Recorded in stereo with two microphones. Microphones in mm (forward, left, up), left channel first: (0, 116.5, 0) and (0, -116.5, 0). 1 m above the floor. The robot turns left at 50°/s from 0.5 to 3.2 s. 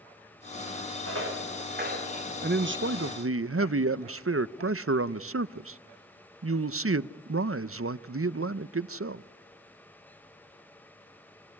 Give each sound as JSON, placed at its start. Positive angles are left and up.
{"t": 1.1, "sound": "footsteps", "side_deg": -75, "distance_m": 5.0}
{"t": 2.4, "sound": "a man speaking", "azimuth_deg": -45, "distance_m": 0.5}